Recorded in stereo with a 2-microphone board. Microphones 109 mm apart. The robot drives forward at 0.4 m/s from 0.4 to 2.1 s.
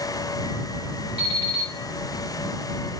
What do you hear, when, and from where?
1.2 s an alarm clock: 35° left (ahead or behind), 1.6 m; by 1.7 s 40° left (ahead or behind), 1.4 m